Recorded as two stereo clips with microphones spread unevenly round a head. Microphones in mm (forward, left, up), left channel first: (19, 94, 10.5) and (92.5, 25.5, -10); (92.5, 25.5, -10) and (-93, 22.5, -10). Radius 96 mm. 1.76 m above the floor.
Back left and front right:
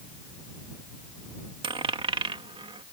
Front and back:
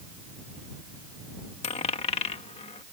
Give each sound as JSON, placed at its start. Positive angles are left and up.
{"t": 1.6, "sound": "a dropped coin", "azimuth_deg": -35}